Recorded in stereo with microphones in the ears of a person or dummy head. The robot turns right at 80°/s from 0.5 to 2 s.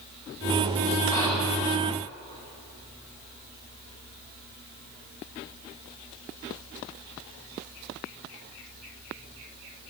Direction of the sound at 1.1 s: 160° left.